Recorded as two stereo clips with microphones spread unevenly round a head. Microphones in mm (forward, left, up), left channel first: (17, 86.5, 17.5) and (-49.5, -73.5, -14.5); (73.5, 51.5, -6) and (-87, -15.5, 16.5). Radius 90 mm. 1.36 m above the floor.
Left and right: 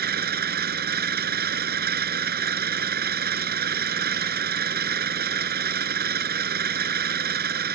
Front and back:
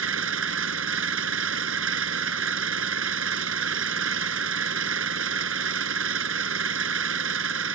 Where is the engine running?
145° right.